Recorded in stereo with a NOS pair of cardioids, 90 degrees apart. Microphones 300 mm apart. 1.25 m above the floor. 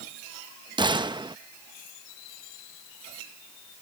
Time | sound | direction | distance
0.8 | a gunshot | 15° right | ?